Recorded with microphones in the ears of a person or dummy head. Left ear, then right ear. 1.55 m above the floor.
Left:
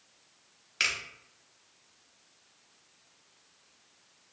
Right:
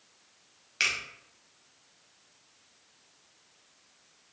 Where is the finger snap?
Centre (ahead or behind), 0.7 m.